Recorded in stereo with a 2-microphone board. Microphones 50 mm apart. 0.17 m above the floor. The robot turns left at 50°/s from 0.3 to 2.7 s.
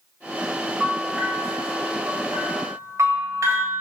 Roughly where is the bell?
Ahead.